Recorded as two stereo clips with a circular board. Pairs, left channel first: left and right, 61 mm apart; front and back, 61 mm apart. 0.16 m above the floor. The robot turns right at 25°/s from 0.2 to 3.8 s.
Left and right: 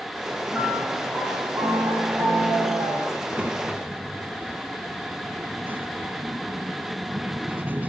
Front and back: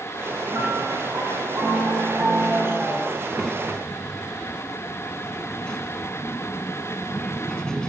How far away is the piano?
About 9 m.